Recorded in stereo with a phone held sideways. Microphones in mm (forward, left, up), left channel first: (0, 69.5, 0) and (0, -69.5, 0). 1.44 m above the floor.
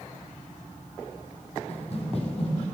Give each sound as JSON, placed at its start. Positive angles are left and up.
{"t": 1.7, "sound": "running footsteps", "side_deg": 45, "distance_m": 3.0}